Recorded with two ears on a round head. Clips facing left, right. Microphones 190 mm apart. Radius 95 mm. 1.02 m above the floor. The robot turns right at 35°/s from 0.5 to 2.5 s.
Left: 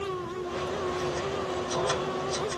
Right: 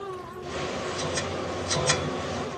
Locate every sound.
Only background noise.